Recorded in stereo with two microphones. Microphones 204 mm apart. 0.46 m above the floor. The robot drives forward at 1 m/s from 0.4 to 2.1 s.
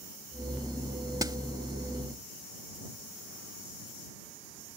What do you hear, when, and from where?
1.2 s a snare drum: 20° right (ahead or behind)